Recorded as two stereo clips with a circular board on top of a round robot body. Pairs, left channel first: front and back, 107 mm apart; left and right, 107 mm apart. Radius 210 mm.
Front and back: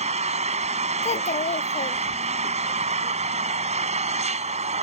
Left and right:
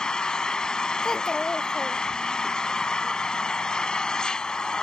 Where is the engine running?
175° left.